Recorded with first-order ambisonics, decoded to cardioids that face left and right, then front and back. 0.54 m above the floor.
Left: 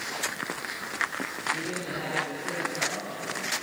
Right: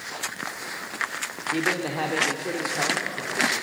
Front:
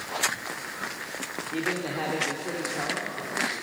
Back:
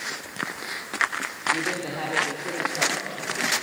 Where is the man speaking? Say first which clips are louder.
Right 6 dB, even; 90° right, 1.1 m.